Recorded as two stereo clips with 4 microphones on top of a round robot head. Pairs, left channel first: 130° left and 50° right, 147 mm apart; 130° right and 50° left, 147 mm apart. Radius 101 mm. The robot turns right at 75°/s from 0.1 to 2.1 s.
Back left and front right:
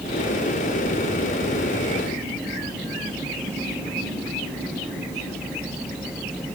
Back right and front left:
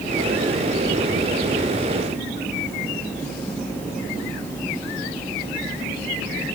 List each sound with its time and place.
Only background noise.